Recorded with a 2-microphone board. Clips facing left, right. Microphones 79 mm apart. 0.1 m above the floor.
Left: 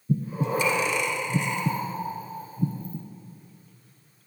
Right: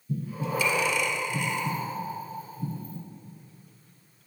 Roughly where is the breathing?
Left.